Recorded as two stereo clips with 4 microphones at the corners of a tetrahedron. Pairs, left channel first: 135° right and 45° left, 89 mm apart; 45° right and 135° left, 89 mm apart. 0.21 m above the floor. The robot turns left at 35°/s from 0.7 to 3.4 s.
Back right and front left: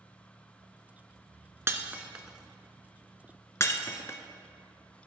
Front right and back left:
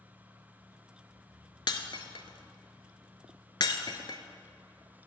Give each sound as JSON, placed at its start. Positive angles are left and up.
{"t": 1.7, "sound": "breaking glass", "azimuth_deg": -15, "distance_m": 0.6}